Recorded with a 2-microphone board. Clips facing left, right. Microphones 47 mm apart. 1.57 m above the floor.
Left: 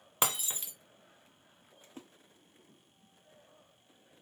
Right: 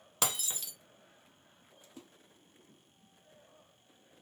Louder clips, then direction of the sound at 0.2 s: Left 2 dB; 25° left (ahead or behind).